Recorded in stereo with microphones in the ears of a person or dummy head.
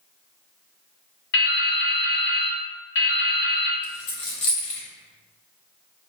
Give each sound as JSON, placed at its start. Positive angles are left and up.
{"t": 1.3, "sound": "dripping", "side_deg": 60, "distance_m": 0.8}
{"t": 3.8, "sound": "a dropped coin", "side_deg": 30, "distance_m": 0.7}